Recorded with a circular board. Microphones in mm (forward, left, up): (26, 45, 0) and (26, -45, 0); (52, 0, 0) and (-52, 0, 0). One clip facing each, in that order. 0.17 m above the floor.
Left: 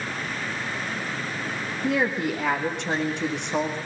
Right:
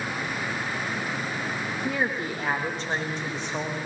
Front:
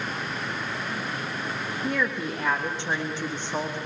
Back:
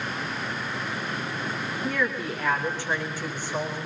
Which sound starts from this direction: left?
A woman speaking, at 1.8 s.